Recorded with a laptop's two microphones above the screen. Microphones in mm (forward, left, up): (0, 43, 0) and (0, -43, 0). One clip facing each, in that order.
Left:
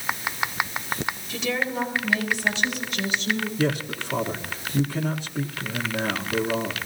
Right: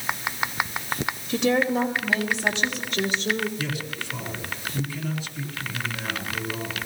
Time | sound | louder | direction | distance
1.3 | a woman speaking | right 7 dB | 70° right (ahead or behind) | 3 m
3.6 | a man speaking | left 6 dB | 70° left (ahead or behind) | 1.5 m